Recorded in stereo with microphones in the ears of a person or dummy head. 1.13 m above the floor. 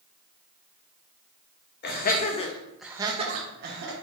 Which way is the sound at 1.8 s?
50° left (ahead or behind).